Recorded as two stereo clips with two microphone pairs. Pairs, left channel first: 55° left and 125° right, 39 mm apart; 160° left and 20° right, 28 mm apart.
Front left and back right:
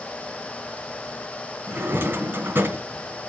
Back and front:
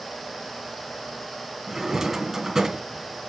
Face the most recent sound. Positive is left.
turn(degrees=-100)